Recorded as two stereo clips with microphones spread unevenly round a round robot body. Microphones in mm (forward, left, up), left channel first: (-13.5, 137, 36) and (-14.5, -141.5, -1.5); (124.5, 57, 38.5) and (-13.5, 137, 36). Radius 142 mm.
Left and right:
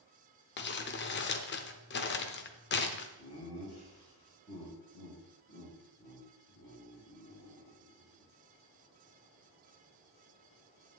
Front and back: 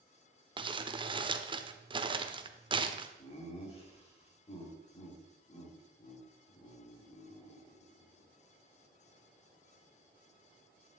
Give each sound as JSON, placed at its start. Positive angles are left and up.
{"t": 0.6, "sound": "crumpling", "azimuth_deg": 120, "distance_m": 1.0}
{"t": 3.2, "sound": "laughter", "azimuth_deg": 20, "distance_m": 4.5}